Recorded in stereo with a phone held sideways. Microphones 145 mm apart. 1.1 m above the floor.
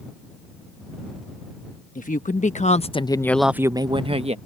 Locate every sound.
1.9 s a woman speaking: 75° left (ahead or behind); by 4.4 s 50° right (ahead or behind)